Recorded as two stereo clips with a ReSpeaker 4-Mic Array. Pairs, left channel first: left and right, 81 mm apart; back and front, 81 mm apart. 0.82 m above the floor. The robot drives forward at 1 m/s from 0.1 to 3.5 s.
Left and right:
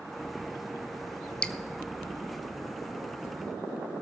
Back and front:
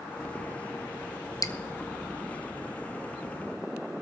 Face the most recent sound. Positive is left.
turn(degrees=175)